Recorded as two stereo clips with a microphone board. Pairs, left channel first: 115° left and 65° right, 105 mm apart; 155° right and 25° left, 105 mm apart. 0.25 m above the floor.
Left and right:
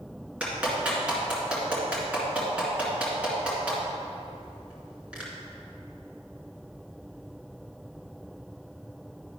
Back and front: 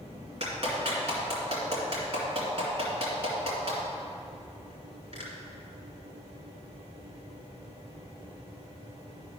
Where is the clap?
10° left, 2.5 m.